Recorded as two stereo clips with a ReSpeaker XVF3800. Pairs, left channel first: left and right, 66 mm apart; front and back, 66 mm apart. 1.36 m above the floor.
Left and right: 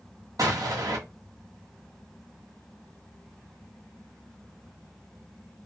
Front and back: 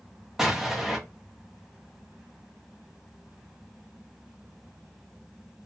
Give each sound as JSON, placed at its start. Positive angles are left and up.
{"t": 0.4, "sound": "an explosion", "azimuth_deg": -100, "distance_m": 0.7}